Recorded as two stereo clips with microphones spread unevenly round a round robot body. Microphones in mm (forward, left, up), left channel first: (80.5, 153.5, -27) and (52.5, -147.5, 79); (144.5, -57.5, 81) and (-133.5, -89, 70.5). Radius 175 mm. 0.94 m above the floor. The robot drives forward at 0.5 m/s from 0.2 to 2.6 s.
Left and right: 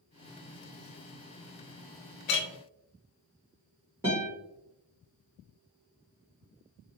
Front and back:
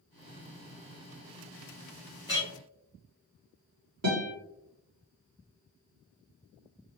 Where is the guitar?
175° left, 1.3 m.